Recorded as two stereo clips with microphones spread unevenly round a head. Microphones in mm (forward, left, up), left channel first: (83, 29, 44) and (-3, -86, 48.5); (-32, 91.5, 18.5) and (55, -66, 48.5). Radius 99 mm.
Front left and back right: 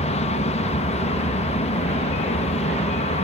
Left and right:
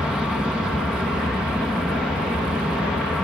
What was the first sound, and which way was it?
An aircraft, 30° left.